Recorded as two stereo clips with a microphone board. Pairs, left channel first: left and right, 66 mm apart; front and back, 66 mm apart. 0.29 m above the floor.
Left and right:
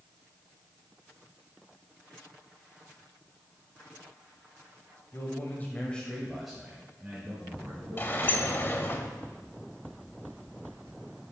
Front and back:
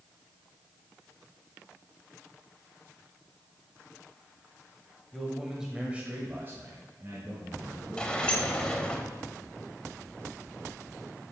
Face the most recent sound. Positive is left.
turn(degrees=60)